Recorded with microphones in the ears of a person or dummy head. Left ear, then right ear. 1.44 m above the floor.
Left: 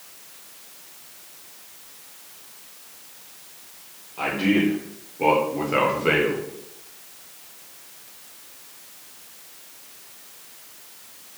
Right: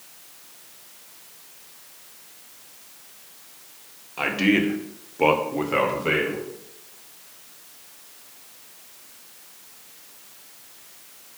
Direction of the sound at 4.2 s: 90° right.